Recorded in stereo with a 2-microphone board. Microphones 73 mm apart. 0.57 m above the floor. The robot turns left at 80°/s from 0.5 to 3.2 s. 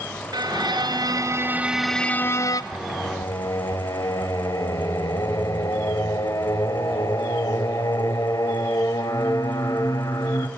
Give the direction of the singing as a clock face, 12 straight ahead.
9 o'clock.